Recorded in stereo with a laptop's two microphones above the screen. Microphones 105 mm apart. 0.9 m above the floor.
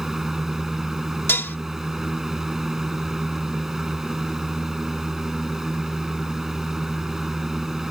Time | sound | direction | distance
0.0 | a fan | 5° right (ahead or behind) | ?
1.3 | dishes clattering | 20° left (ahead or behind) | ?